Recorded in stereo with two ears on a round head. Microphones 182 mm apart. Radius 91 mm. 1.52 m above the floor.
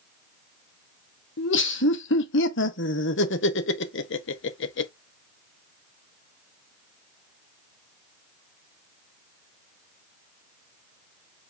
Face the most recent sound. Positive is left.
turn(degrees=65)  # may be behind; listen again after turning